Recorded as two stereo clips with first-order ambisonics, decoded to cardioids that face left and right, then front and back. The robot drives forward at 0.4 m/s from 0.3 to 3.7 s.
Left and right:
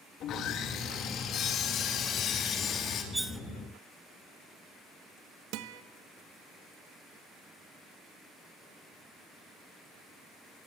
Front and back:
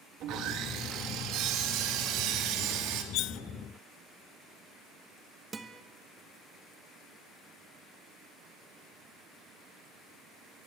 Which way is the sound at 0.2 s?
140° left.